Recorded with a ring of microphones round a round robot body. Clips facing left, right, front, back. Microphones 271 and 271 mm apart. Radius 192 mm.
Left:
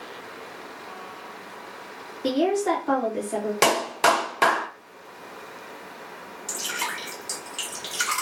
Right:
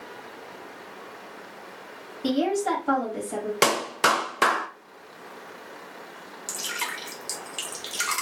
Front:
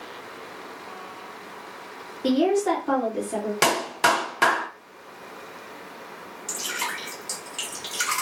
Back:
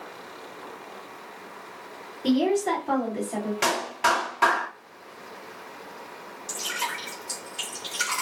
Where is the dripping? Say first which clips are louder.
Left 3 dB, front 1 dB; 45° right, 1.3 m.